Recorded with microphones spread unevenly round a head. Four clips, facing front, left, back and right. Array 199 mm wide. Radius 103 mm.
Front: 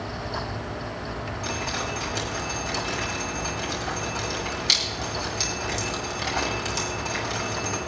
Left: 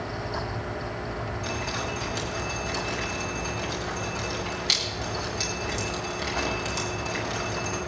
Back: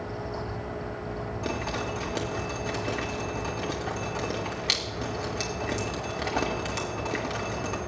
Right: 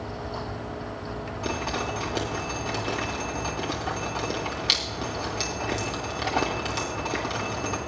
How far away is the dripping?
About 1.9 m.